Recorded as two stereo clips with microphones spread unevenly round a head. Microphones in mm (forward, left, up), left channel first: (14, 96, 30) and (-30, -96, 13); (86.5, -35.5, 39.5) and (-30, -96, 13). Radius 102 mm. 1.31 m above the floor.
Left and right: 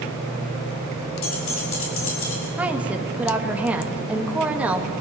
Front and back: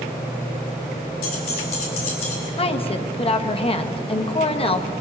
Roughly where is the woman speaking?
Ahead.